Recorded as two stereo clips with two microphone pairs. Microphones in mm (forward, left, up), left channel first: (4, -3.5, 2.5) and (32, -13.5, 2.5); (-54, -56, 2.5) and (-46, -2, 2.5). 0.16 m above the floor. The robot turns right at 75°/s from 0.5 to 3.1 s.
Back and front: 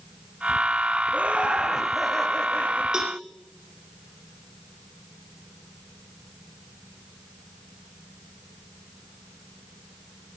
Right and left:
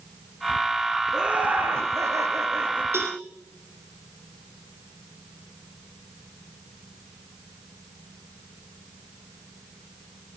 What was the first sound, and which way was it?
Laughter, straight ahead.